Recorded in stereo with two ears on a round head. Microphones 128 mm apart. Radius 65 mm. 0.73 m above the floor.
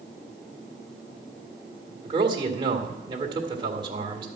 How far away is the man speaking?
About 1.8 m.